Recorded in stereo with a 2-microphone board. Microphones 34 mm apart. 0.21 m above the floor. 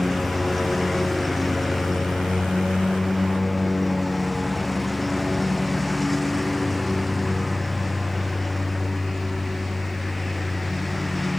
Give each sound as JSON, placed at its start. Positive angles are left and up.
{"t": 0.0, "sound": "a lawn mower", "side_deg": 0}